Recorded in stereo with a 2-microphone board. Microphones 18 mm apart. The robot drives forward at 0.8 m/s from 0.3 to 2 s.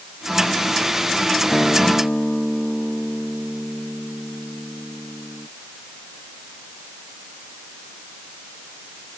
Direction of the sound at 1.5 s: 20° left (ahead or behind).